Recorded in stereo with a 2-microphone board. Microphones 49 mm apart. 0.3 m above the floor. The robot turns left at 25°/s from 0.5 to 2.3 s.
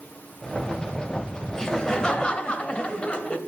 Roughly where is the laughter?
Centre.